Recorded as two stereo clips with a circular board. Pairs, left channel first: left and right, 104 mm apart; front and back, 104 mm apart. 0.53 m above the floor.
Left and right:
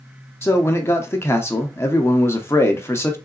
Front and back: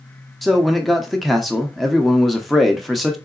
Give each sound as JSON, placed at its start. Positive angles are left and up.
{"t": 0.4, "sound": "a man speaking", "azimuth_deg": 90, "distance_m": 0.7}